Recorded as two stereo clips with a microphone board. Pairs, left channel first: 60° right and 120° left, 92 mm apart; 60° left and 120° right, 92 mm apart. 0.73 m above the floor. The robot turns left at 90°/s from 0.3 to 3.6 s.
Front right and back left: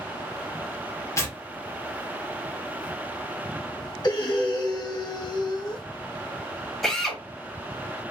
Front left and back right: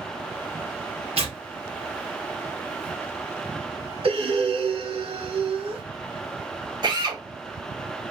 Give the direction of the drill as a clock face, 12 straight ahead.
5 o'clock.